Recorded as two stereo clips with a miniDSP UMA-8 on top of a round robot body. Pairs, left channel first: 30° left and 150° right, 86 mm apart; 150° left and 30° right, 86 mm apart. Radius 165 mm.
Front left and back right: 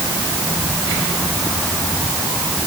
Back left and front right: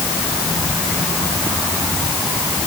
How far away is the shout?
I don't hear a shout.